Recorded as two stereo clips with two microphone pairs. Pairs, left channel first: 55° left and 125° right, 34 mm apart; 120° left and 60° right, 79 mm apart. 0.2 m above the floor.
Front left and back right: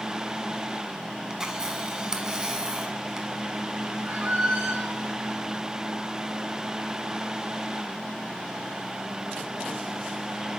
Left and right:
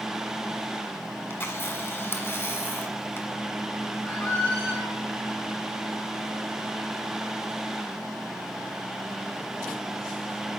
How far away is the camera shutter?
About 1.2 m.